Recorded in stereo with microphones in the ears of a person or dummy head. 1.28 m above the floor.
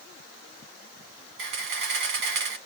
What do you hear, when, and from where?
1.4 s a camera shutter: 55° right (ahead or behind), 2 m